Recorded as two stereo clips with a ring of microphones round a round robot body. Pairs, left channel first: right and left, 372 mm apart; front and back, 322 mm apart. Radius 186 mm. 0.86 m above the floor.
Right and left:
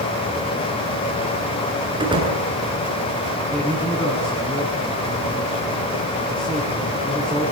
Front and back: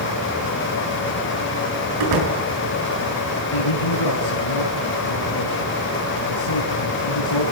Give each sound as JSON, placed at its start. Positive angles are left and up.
{"t": 2.0, "sound": "a door slam", "azimuth_deg": 170, "distance_m": 7.0}
{"t": 3.5, "sound": "a man speaking", "azimuth_deg": -5, "distance_m": 7.5}